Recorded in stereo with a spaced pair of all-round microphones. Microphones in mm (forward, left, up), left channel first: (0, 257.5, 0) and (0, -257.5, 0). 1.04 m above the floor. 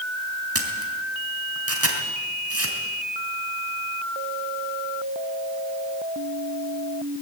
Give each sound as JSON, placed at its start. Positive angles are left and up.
{"t": 0.6, "sound": "a camera shutter", "side_deg": -25, "distance_m": 3.0}